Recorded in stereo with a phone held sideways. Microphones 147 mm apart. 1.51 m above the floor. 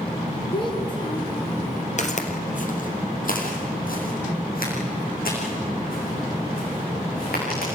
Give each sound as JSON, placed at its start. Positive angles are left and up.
{"t": 0.5, "sound": "a child speaking", "side_deg": 30, "distance_m": 3.5}
{"t": 2.0, "sound": "footsteps", "side_deg": 50, "distance_m": 2.5}